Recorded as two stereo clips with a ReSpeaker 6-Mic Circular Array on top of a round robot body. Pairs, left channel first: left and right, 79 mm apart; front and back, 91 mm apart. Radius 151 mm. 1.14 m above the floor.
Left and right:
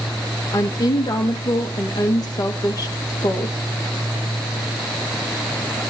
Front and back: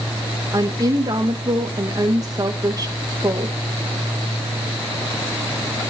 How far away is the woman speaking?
About 2.5 m.